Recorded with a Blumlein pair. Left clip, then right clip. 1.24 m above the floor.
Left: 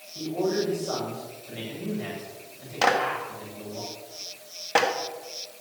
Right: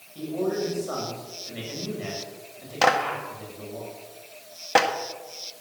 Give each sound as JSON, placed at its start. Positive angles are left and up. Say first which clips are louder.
{"t": 0.1, "sound": "a man speaking", "louder": "left 1 dB", "azimuth_deg": -10, "distance_m": 8.0}
{"t": 2.8, "sound": "a clap", "louder": "right 1 dB", "azimuth_deg": -10, "distance_m": 1.7}